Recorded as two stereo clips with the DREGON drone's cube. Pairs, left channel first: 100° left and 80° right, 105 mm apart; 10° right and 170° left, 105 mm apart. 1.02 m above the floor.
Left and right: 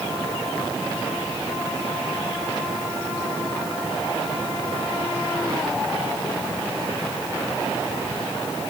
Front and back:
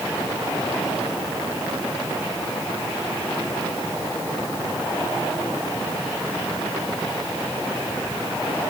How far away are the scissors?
No scissors in this recording.